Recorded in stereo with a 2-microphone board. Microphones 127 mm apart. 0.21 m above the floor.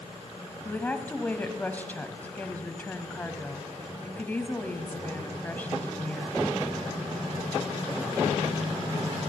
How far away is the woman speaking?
About 1.2 m.